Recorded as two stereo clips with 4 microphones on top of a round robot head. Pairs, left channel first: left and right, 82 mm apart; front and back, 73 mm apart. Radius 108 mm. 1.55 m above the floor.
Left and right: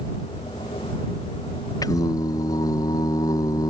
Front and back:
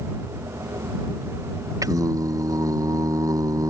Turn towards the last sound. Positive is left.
turn(degrees=140)